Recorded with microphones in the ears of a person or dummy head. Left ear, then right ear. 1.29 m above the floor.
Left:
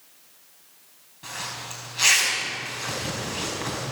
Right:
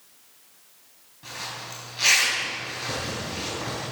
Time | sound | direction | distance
1.2 | a zipper | 10° left (ahead or behind) | 4.5 m